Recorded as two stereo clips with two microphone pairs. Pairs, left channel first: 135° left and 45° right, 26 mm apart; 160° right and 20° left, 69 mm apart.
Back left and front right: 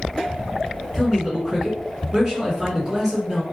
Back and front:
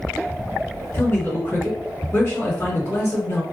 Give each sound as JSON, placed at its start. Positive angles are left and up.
{"t": 0.9, "sound": "a man speaking", "azimuth_deg": -115, "distance_m": 2.0}